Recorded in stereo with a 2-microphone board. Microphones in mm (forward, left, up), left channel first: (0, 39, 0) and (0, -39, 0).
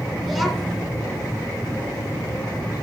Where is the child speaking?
Centre (ahead or behind), 3 m.